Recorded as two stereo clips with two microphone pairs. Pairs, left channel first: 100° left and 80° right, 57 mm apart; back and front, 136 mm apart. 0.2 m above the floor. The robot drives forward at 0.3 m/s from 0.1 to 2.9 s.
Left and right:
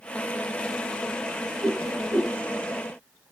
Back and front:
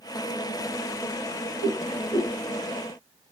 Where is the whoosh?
165° left, 3 m.